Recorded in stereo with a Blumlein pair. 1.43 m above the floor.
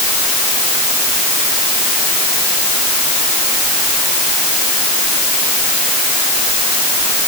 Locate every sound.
Only background noise.